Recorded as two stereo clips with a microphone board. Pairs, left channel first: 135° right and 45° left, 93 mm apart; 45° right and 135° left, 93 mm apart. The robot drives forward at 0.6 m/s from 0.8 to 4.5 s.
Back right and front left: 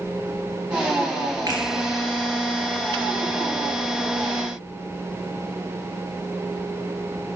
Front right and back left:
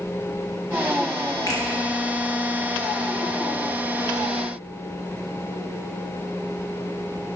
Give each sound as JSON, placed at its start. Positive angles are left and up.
{"t": 1.5, "sound": "a finger snap", "azimuth_deg": 0, "distance_m": 2.0}